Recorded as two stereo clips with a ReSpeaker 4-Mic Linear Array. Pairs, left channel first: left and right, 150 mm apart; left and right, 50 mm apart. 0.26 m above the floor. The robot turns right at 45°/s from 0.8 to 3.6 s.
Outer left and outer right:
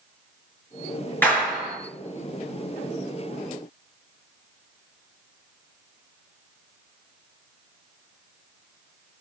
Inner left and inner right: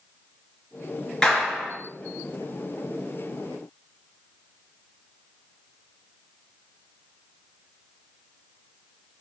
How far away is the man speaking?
I don't hear a man speaking.